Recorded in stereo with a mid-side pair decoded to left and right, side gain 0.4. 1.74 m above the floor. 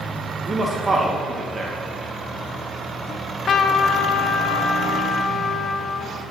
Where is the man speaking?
30° right, 2.5 m.